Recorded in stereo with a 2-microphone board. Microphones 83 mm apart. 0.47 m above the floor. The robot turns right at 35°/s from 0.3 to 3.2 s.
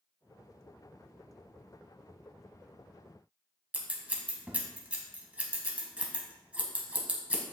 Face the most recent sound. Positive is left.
turn(degrees=-15)  # may be behind; listen again after turning